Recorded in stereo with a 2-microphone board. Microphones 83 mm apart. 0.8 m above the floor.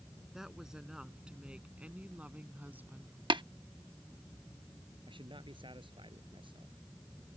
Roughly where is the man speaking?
Right.